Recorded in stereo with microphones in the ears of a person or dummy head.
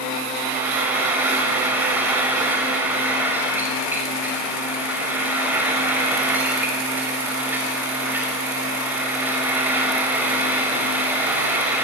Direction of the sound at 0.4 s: 15° right (ahead or behind).